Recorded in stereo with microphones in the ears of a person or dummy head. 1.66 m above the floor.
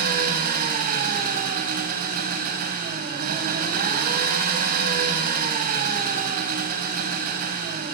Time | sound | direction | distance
0.0 | an engine running | 55° right (ahead or behind) | 4 m